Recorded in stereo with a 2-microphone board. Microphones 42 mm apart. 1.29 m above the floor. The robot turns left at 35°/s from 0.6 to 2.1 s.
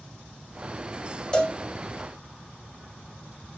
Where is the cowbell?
15° left (ahead or behind), 3 m; by 1.6 s 20° left (ahead or behind), 3 m.